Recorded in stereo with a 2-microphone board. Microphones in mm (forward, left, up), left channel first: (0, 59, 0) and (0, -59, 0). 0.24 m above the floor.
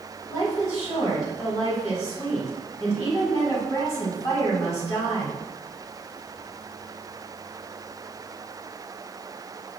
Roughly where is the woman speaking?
Left.